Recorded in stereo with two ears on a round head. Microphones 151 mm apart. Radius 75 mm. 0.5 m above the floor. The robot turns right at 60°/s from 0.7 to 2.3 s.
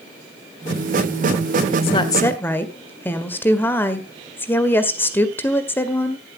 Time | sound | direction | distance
1.8 | a woman speaking | 35° left (ahead or behind) | 1.6 m